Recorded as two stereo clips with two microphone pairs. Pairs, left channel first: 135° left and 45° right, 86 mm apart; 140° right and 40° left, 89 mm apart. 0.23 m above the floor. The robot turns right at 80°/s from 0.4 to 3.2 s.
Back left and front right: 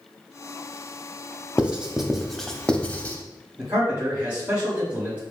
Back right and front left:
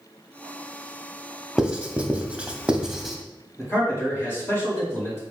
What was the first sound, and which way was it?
Writing, 10° right.